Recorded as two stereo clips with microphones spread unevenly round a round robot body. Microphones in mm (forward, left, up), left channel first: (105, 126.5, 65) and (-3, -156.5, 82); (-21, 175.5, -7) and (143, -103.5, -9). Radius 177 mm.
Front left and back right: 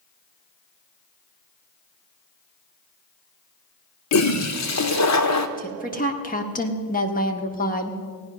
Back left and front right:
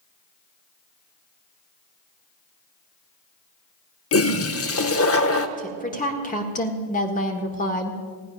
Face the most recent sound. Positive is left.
turn(degrees=80)